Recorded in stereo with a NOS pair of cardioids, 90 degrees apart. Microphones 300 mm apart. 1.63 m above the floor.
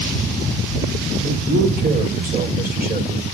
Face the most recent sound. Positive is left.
turn(degrees=-30)